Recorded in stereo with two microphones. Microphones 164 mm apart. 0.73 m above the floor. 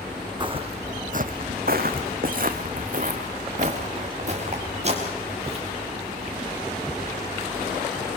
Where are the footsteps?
30° right (ahead or behind), 1.6 m; by 5.6 s 40° right (ahead or behind), 5.5 m.